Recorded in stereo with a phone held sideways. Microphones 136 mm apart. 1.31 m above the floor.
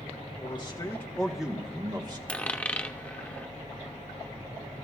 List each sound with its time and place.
0.4 s a man speaking: 40° left (ahead or behind), 1.6 m; by 2.2 s 30° right (ahead or behind), 1.9 m
2.3 s a dropped coin: 10° left (ahead or behind), 0.7 m